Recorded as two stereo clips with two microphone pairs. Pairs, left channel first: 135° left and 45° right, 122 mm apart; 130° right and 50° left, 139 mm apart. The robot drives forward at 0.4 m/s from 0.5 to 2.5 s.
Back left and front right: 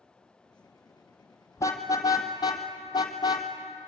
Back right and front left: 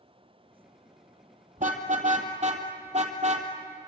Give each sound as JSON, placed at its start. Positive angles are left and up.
{"t": 1.6, "sound": "a car horn", "azimuth_deg": 70, "distance_m": 2.0}